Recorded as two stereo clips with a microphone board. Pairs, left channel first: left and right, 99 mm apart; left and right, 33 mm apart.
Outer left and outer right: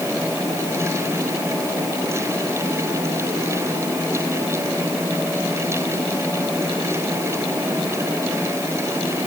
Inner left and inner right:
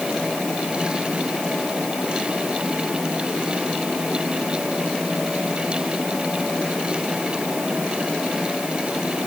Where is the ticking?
No ticking in this recording.